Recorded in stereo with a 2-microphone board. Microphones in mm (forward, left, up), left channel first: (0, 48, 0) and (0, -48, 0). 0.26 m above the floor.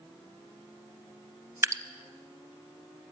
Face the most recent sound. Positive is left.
turn(degrees=-30)  # may be behind; listen again after turning